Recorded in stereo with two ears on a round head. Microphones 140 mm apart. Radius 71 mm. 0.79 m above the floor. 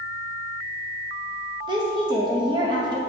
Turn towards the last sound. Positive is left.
turn(degrees=-30)  # may be behind; listen again after turning